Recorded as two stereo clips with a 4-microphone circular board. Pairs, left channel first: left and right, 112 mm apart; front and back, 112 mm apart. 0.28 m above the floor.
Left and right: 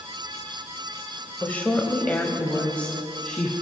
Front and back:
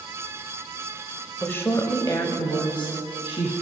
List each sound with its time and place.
1.4 s a woman speaking: 40° left, 1.0 m; by 3.5 s 15° left, 1.8 m